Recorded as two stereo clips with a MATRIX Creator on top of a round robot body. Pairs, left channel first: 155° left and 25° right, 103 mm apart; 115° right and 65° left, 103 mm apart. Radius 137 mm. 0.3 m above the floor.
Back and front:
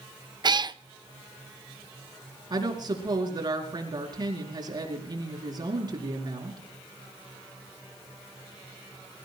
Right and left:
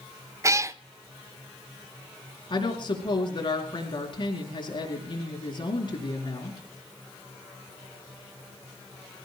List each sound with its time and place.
0.4 s a cat meowing: 10° left, 0.8 m
2.5 s a woman speaking: 70° right, 5 m